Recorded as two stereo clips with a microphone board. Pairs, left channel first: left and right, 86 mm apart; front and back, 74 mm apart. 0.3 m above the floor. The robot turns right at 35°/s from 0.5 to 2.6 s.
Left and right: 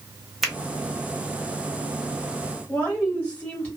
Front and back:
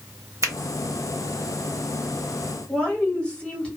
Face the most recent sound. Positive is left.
turn(degrees=45)